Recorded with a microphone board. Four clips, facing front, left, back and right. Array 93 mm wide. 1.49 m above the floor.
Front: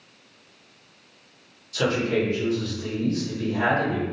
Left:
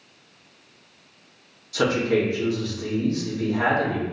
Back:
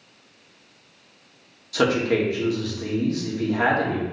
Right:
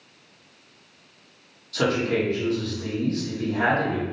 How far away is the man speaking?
About 2.5 m.